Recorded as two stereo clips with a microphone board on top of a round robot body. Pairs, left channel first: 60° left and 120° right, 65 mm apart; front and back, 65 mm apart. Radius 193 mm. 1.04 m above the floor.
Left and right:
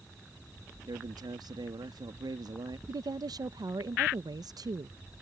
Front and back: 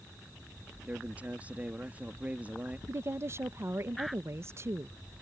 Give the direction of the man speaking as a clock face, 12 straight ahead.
4 o'clock.